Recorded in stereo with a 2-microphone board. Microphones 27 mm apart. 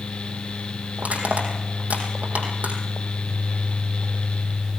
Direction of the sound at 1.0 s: 80° right.